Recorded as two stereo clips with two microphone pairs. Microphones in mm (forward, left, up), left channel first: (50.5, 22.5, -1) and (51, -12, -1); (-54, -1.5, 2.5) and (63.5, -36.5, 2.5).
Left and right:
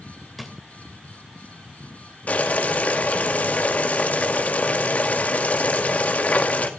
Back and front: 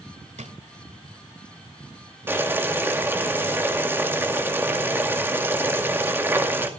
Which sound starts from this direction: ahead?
A drawer, at 0.4 s.